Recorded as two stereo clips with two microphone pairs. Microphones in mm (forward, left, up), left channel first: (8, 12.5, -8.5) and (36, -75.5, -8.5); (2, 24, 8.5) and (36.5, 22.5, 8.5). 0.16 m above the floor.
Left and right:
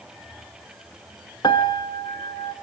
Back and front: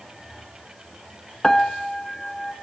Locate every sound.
1.4 s a piano: 100° left, 1.0 m